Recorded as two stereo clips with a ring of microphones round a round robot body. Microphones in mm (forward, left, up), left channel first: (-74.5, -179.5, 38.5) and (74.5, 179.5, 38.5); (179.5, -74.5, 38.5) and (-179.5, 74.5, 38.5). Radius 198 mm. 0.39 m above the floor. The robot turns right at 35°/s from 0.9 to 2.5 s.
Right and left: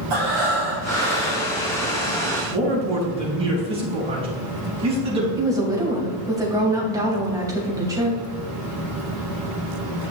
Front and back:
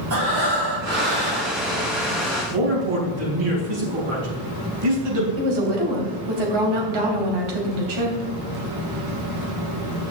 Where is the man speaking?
145° left, 3.5 m.